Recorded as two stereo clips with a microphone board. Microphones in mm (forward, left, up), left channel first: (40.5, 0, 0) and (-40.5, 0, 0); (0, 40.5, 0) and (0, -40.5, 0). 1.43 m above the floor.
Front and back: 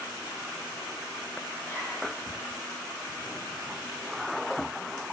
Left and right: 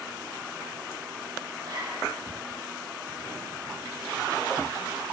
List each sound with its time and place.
1.6 s a zipper: 60° right, 3.5 m